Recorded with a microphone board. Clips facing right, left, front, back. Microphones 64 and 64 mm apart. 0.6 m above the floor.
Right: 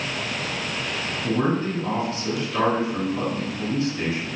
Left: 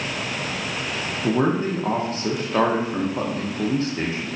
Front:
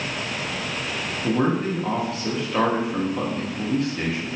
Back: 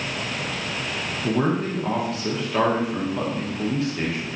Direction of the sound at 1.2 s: 90° left.